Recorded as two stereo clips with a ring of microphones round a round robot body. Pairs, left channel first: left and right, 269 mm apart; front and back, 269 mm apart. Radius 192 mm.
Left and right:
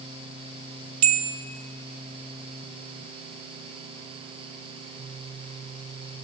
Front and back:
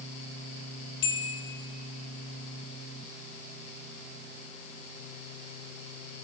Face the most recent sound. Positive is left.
turn(degrees=-60)